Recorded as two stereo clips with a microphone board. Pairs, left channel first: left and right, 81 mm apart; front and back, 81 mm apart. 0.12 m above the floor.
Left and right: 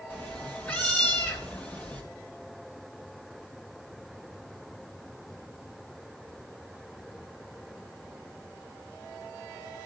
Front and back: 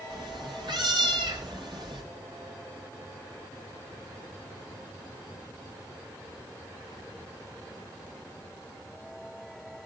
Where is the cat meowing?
160° left, 3 m.